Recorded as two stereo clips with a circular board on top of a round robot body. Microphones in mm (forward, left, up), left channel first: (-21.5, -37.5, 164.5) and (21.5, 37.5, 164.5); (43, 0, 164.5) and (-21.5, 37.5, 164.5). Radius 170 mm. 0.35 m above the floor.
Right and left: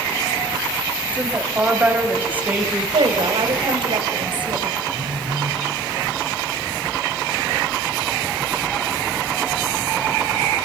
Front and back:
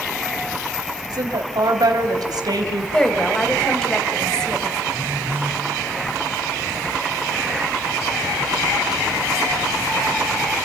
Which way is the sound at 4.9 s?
90° left.